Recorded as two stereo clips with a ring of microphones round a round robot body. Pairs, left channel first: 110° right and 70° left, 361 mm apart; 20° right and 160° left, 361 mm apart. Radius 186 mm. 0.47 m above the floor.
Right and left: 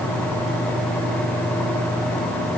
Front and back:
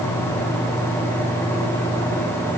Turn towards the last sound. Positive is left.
No sound to turn to.